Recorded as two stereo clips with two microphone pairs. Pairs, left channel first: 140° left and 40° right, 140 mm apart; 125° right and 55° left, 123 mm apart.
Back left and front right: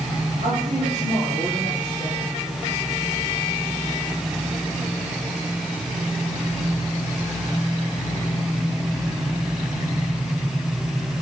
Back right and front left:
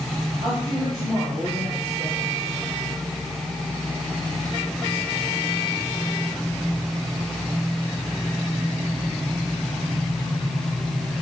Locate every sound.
0.4 s a woman speaking: 35° right, 5.5 m